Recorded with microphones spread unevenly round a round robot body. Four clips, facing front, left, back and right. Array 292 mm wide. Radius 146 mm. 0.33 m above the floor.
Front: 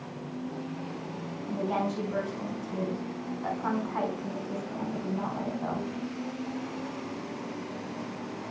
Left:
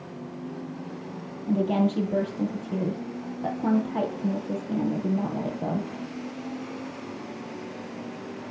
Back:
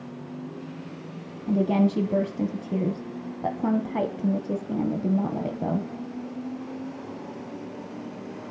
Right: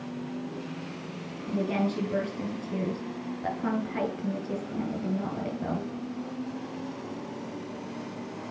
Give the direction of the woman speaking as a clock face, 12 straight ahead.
7 o'clock.